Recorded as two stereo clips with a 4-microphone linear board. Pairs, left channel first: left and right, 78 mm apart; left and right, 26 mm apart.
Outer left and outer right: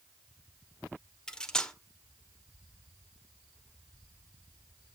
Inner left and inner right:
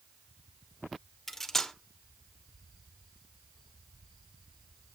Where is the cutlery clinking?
10° left (ahead or behind), 1.1 m.